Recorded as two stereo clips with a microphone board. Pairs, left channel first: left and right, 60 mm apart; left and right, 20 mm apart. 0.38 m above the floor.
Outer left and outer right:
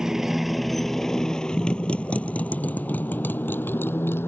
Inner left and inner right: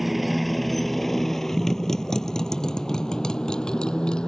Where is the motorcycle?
10° right (ahead or behind); by 4.3 s 40° left (ahead or behind).